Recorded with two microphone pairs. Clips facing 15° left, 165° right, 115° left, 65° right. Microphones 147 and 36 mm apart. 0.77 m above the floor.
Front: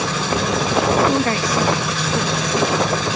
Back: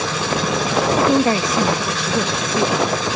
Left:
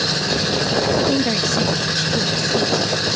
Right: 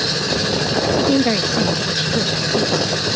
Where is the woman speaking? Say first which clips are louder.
Back 2 dB, right 2 dB; 120° right.